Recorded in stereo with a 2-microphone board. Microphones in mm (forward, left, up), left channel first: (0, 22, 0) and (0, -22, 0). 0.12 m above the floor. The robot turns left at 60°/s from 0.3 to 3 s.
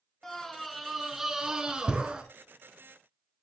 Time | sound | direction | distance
0.2 | a scream | 10° left (ahead or behind) | 1.3 m